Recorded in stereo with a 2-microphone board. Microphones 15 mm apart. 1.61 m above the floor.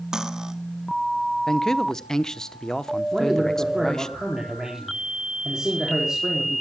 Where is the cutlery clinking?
45° right (ahead or behind), 1.5 m.